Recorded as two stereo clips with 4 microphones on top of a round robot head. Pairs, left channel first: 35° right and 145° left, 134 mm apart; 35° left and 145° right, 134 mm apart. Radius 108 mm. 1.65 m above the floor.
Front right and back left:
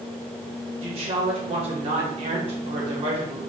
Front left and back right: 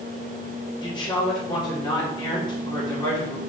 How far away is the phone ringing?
I don't hear a phone ringing.